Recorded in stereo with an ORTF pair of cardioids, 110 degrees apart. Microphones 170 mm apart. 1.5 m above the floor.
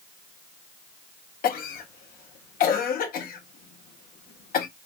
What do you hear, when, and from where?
1.4 s a cough: 60° left, 1.7 m